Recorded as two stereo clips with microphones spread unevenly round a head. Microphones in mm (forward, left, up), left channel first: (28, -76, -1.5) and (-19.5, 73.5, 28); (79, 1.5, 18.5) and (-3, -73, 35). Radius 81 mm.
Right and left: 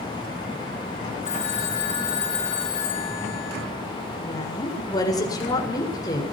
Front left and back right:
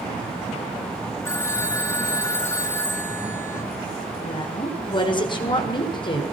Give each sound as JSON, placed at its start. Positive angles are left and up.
{"t": 1.2, "sound": "a phone ringing", "azimuth_deg": -20, "distance_m": 8.0}
{"t": 4.2, "sound": "a woman speaking", "azimuth_deg": -5, "distance_m": 6.5}